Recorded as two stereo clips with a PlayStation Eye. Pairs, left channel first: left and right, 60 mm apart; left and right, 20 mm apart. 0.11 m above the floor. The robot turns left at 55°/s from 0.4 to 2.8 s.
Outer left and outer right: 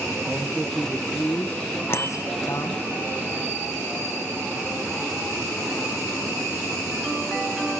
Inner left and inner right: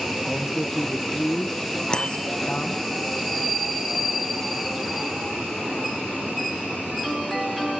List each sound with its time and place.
0.3 s a man speaking: 150° right, 4 m; by 2.8 s 75° left, 4 m
1.9 s a bicycle bell: 45° left (ahead or behind), 2 m; by 2.2 s 55° left (ahead or behind), 2 m